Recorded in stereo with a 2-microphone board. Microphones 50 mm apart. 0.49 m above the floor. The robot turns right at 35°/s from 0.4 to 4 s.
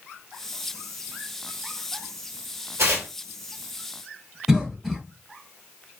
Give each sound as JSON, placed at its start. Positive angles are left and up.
{"t": 2.8, "sound": "tearing paper", "side_deg": -65, "distance_m": 1.2}
{"t": 4.5, "sound": "a cough", "side_deg": -5, "distance_m": 1.2}